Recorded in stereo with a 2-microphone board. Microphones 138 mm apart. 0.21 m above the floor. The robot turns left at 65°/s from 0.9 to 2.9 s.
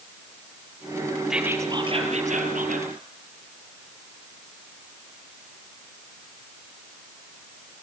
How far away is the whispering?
About 4.5 m.